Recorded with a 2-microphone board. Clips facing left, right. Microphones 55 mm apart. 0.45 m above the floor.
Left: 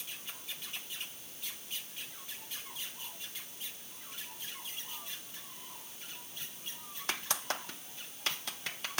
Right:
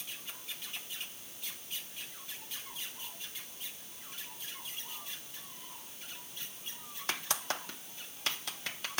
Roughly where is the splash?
No splash in this recording.